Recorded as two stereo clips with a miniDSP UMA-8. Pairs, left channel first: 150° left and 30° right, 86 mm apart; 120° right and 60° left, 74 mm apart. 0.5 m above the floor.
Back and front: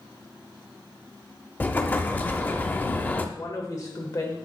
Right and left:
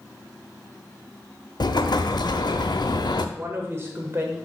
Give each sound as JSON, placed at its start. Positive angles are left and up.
{"t": 1.6, "sound": "an explosion", "azimuth_deg": -140, "distance_m": 0.5}
{"t": 3.4, "sound": "a woman speaking", "azimuth_deg": 110, "distance_m": 1.5}